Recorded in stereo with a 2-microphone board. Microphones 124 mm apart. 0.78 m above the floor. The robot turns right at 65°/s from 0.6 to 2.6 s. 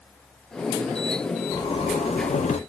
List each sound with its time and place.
1.5 s a zipper: 35° left, 0.8 m; by 2.6 s 105° left, 0.8 m